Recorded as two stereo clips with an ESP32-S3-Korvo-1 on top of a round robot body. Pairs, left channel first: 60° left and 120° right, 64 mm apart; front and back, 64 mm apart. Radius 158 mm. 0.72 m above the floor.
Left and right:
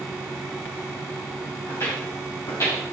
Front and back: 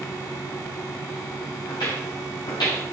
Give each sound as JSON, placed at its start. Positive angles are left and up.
{"t": 1.7, "sound": "footsteps", "azimuth_deg": 5, "distance_m": 4.5}